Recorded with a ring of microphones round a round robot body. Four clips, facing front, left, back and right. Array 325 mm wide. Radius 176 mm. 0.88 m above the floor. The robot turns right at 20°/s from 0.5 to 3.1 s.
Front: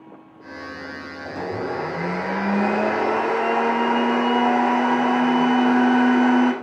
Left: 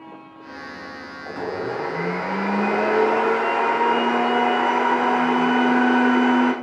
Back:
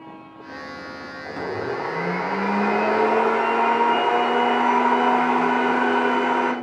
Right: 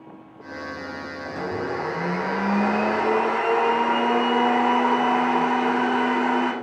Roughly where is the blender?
Ahead.